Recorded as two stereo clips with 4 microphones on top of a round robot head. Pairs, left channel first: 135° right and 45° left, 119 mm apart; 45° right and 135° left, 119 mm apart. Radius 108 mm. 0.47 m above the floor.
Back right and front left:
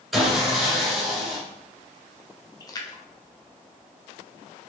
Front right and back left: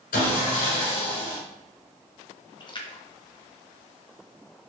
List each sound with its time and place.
0.1 s sawing: 40° right, 1.4 m
2.6 s a splash: 85° right, 0.8 m